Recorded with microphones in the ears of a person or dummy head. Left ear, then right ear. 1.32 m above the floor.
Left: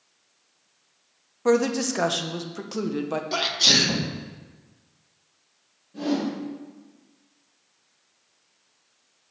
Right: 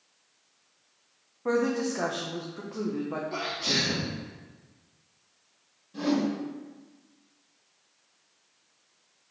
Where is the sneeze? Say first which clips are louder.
Left 10 dB; 60° left (ahead or behind), 1.1 m.